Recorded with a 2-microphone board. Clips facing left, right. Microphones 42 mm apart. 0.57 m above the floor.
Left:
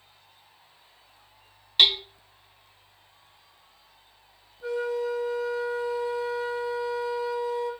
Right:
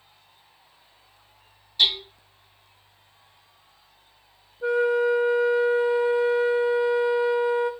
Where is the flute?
35° right (ahead or behind), 0.5 m.